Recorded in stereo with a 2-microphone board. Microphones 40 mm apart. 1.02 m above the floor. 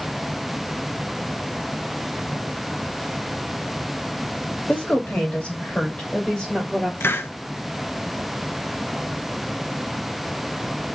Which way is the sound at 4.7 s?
30° left (ahead or behind).